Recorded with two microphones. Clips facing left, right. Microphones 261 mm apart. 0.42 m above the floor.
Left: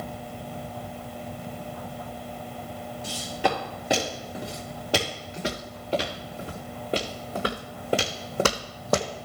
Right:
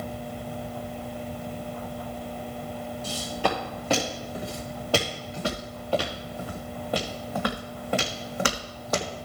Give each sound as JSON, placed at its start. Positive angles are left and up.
{"t": 3.0, "sound": "footsteps", "side_deg": 15, "distance_m": 5.5}